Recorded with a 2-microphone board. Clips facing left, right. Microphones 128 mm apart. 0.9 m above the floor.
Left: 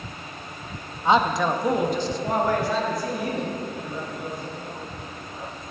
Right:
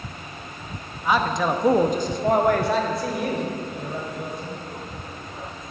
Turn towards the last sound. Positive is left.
turn(degrees=-75)  # may be behind; listen again after turning